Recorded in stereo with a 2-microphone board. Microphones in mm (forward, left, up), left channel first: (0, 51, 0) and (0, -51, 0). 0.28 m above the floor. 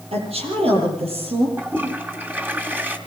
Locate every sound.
0.1 s a woman speaking: 75° right (ahead or behind), 9.5 m; by 1.5 s 70° right (ahead or behind), 9.5 m
1.6 s a toilet flushing: 20° right (ahead or behind), 2.5 m